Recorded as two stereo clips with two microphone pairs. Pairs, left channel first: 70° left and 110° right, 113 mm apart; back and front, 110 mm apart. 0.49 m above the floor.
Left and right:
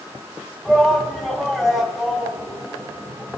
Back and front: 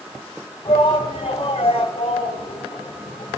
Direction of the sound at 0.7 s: 160° left.